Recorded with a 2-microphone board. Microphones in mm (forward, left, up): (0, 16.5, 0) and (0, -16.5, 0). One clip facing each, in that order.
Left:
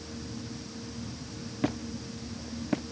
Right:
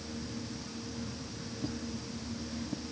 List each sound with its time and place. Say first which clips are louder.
1.6 s a squeak: left 7 dB; 70° left (ahead or behind)